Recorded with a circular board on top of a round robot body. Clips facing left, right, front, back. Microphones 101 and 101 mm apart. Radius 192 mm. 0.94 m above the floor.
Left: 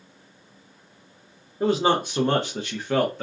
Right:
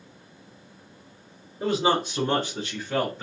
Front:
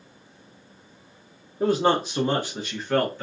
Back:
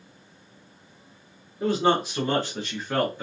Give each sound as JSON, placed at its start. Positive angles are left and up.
{"t": 1.6, "sound": "a man speaking", "azimuth_deg": 40, "distance_m": 0.9}